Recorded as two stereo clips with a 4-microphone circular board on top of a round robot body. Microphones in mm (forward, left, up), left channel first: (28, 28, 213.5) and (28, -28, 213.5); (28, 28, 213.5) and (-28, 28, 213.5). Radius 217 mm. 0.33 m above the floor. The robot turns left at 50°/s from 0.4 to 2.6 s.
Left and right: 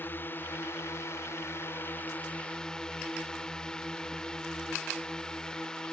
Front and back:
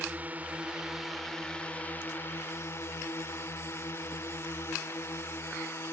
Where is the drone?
125° left; by 5.9 s 15° left.